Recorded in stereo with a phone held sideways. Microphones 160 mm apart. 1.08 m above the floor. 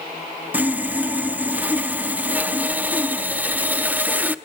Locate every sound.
0.5 s sawing: 10° right (ahead or behind), 0.5 m